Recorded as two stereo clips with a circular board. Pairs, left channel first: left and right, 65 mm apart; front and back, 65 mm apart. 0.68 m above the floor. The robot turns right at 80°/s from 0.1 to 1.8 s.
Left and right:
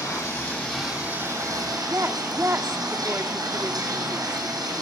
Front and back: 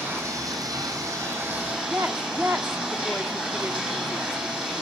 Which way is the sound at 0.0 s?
120° left.